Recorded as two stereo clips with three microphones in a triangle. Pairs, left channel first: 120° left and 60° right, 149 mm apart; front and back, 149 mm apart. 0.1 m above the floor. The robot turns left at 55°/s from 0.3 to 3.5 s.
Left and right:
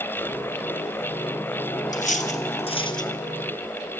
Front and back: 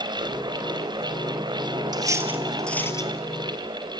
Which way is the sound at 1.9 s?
125° left.